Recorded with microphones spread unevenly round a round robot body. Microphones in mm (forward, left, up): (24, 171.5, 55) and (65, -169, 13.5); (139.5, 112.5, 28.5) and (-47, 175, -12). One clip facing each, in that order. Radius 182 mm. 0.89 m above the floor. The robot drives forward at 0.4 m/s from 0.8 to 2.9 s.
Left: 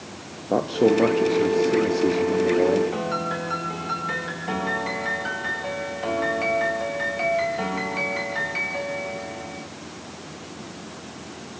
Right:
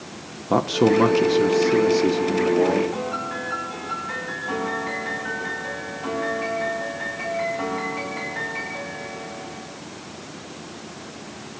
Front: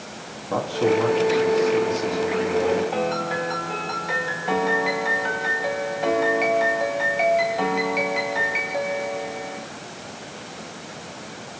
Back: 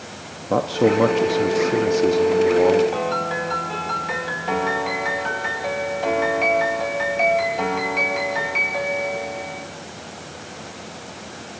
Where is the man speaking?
150° right, 0.8 m; by 2.8 s 165° right, 1.5 m.